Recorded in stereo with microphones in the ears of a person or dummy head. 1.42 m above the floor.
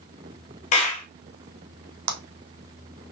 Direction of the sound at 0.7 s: 40° left (ahead or behind).